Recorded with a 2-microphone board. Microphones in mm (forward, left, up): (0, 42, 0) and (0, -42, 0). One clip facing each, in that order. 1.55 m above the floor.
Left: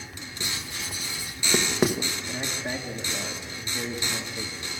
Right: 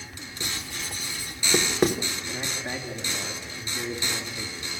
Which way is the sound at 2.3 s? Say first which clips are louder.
Left 1 dB; 45° left (ahead or behind).